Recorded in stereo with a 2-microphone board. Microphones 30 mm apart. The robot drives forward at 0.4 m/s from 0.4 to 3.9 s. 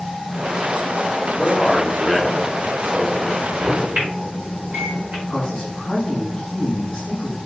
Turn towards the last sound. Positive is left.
turn(degrees=25)  # may be behind; listen again after turning